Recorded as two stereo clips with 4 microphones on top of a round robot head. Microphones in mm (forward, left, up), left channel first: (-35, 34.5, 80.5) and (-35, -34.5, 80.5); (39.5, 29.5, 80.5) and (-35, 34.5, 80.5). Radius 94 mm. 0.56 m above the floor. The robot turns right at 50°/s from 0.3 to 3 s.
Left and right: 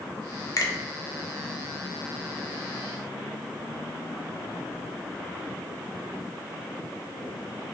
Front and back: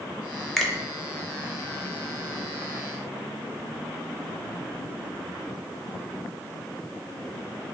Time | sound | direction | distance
0.6 | a finger snap | 80° left | 0.7 m